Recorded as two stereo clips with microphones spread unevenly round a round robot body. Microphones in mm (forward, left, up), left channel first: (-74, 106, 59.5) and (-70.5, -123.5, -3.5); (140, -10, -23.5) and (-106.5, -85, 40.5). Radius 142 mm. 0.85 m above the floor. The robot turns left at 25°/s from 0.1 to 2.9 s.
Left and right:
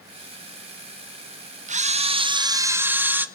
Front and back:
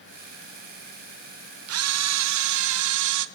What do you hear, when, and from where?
1.7 s a camera shutter: 130° right, 1.0 m; by 3.2 s 160° right, 1.0 m